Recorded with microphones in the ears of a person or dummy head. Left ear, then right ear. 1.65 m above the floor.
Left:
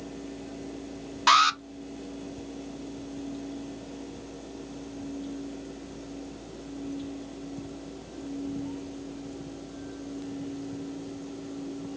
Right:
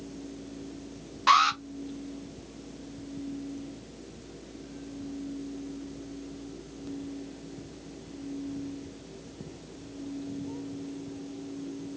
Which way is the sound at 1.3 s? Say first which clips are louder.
Left 1 dB; 15° left (ahead or behind).